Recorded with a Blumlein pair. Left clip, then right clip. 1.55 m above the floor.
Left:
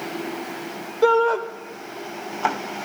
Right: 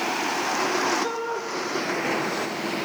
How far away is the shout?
About 1.3 m.